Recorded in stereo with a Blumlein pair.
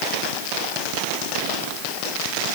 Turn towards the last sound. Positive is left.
No sound to turn to.